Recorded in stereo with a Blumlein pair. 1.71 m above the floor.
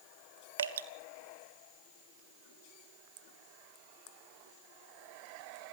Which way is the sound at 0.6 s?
65° right.